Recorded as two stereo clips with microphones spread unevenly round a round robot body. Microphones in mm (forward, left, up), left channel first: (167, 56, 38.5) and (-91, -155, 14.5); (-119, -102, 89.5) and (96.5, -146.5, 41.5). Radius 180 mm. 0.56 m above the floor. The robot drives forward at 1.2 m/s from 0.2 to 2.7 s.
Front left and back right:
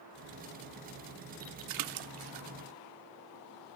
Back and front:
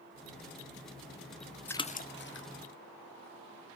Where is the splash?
100° right, 0.6 m; by 2.5 s 150° right, 1.3 m.